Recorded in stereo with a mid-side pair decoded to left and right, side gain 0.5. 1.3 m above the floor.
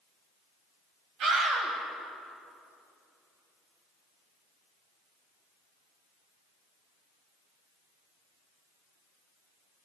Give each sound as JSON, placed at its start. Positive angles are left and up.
{"t": 1.2, "sound": "a scream", "azimuth_deg": -70, "distance_m": 6.5}